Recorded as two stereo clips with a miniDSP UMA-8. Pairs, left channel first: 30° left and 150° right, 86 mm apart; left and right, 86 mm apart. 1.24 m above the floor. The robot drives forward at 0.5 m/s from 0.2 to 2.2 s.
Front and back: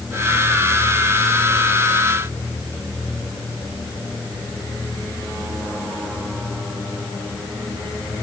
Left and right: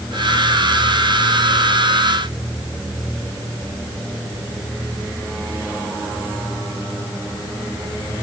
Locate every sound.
Only background noise.